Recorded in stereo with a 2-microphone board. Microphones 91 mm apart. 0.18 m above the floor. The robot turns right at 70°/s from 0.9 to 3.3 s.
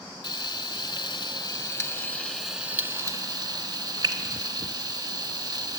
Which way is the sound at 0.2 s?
55° left (ahead or behind).